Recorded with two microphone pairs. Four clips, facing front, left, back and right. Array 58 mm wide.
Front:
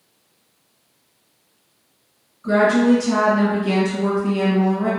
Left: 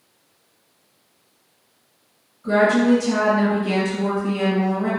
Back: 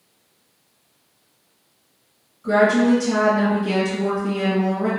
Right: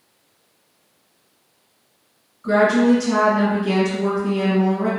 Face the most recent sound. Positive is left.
turn(degrees=-55)